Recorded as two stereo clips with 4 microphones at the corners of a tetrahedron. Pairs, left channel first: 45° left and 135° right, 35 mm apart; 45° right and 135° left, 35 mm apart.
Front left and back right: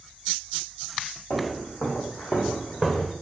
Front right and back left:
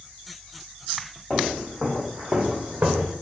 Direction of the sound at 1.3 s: 35° left.